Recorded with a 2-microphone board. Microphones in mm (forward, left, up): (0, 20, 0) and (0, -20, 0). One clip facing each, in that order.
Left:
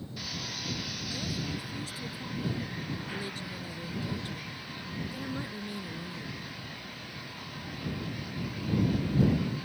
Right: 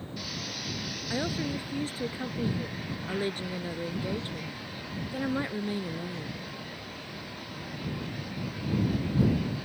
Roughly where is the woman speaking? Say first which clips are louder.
Right 7 dB; right.